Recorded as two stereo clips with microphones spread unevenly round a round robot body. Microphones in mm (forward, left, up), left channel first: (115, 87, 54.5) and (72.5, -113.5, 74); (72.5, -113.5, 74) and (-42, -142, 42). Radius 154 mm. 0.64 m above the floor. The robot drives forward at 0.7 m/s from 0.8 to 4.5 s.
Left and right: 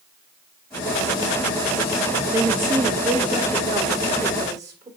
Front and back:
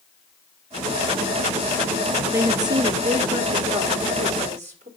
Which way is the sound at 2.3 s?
175° left.